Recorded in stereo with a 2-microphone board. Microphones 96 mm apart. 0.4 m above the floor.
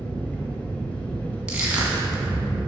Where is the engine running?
15° left (ahead or behind), 1.2 m.